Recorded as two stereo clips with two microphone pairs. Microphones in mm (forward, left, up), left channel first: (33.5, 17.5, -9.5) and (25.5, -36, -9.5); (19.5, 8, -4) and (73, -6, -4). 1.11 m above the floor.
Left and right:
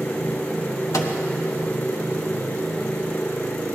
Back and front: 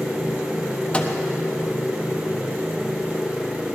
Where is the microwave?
95° left, 1.3 m.